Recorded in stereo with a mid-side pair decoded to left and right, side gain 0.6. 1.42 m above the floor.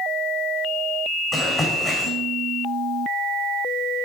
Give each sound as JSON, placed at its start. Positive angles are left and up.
{"t": 1.3, "sound": "running footsteps", "azimuth_deg": 25, "distance_m": 6.0}